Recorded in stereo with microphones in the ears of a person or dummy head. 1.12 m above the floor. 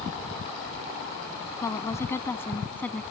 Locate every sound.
1.6 s a woman speaking: 20° left (ahead or behind); by 3.0 s 10° left (ahead or behind)